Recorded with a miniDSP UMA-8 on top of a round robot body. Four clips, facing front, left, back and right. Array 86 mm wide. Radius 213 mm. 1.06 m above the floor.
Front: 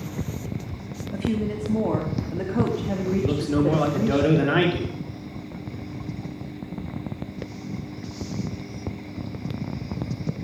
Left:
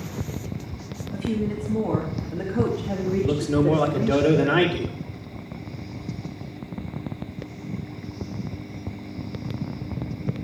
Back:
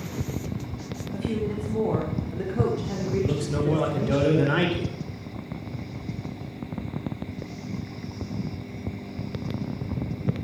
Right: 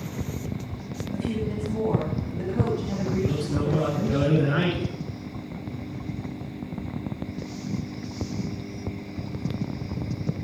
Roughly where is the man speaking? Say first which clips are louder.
Left 8 dB, front 4 dB; ahead left.